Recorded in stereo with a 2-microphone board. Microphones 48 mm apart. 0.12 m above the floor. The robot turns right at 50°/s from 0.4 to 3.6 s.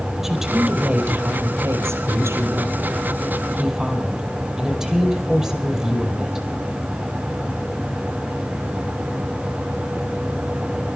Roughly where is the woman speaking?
Behind.